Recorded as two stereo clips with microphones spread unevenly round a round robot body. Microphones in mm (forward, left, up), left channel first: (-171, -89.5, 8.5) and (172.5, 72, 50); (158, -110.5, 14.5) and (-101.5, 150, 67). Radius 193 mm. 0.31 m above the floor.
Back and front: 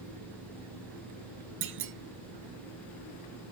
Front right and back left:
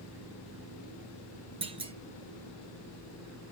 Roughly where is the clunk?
Ahead left.